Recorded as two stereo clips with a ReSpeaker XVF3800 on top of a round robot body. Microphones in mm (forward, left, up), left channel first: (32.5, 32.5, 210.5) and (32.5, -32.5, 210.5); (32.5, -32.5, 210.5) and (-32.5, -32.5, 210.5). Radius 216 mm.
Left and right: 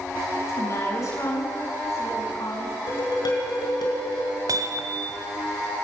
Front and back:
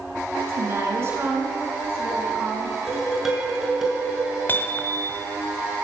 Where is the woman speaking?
135° left, 6.5 m; by 2.8 s 125° left, 5.5 m.